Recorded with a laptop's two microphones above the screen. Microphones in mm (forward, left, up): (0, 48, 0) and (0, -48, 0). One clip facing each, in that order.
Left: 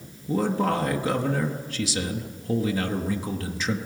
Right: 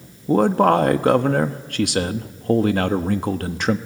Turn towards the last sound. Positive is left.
turn(degrees=-60)  # may be behind; listen again after turning